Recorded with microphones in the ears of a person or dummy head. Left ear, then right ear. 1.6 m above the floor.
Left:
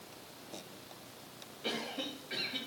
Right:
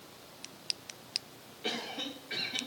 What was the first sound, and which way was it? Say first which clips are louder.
A cough: right 2 dB; 15° right (ahead or behind).